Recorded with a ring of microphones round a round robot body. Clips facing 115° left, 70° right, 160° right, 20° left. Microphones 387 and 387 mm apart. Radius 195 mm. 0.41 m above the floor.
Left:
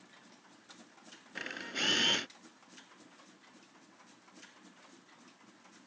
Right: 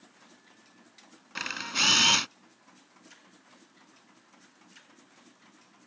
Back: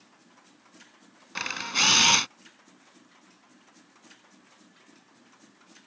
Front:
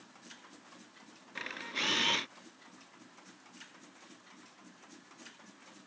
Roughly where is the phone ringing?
No phone ringing in this recording.